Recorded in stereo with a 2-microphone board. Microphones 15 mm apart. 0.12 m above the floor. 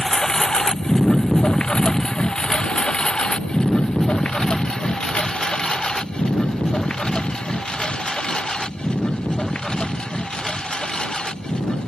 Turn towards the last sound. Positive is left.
turn(degrees=85)